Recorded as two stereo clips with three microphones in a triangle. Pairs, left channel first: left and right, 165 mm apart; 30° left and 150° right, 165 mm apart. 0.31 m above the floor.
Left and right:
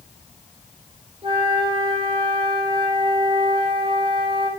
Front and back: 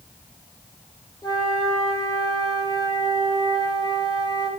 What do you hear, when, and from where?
1.2 s a flute: 35° right, 1.4 m